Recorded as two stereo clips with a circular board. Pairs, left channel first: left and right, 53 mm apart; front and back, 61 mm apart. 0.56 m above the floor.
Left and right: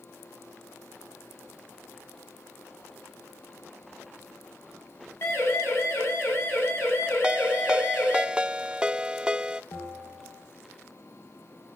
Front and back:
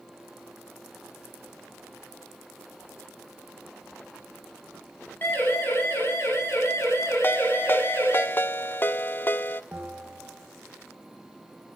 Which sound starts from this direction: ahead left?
A siren, at 5.2 s.